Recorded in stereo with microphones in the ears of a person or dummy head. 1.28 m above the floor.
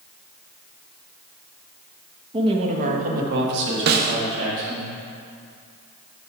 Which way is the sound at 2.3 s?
25° right (ahead or behind).